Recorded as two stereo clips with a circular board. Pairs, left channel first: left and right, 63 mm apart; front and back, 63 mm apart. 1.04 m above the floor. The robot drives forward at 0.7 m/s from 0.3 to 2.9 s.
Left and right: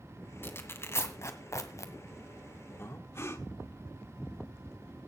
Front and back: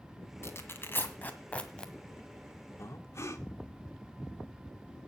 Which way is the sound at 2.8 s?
40° left.